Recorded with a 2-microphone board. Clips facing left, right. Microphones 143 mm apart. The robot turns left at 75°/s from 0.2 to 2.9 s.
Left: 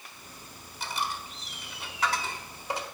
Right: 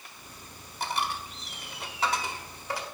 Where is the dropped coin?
55° right (ahead or behind), 0.9 m; by 2.9 s 30° left (ahead or behind), 0.9 m.